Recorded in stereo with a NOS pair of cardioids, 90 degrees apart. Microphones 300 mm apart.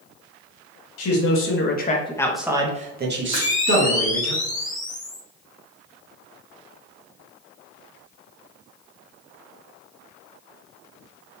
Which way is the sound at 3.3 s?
25° left.